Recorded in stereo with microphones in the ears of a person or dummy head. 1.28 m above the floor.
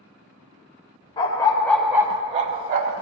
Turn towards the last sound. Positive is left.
turn(degrees=-40)  # may be behind; listen again after turning